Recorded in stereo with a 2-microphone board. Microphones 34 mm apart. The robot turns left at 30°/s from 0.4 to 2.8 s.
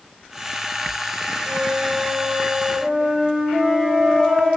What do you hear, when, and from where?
1.5 s a flute: 5° right, 6 m; by 4.5 s 45° right, 6 m
3.5 s a flute: 20° left (ahead or behind), 3 m